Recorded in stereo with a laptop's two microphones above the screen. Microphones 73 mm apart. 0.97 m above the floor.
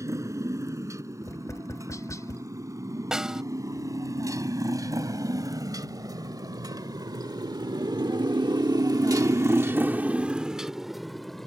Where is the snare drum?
10° right (ahead or behind).